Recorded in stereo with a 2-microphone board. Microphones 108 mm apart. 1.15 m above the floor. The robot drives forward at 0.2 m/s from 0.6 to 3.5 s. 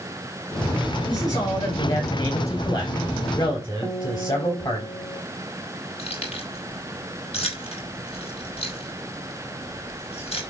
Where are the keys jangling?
70° left (ahead or behind), 5 m.